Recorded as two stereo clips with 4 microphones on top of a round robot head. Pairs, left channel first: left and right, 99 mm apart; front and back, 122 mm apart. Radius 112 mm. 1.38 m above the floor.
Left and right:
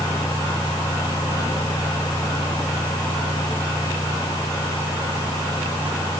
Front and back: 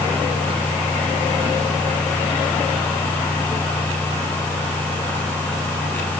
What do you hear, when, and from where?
Only background noise.